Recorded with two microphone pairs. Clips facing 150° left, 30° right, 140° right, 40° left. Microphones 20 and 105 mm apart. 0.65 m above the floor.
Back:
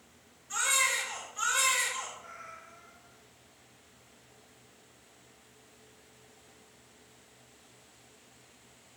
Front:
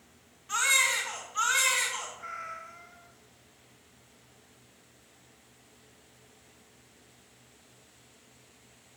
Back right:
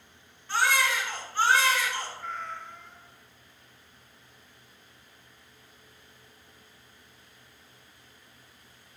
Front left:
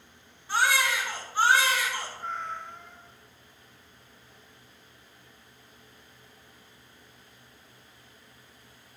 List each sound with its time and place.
0.5 s a baby crying: 40° right, 4 m
2.2 s a cat meowing: 30° right, 1.3 m